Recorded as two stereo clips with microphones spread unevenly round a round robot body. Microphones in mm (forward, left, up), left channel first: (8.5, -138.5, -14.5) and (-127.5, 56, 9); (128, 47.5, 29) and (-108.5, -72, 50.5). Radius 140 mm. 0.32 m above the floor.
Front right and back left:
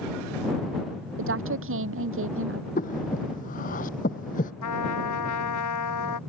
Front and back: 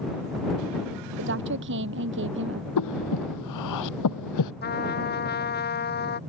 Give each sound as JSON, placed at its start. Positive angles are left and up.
{"t": 1.2, "sound": "a woman speaking", "azimuth_deg": 155}
{"t": 2.8, "sound": "breathing", "azimuth_deg": 10}
{"t": 4.6, "sound": "a trumpet", "azimuth_deg": -30}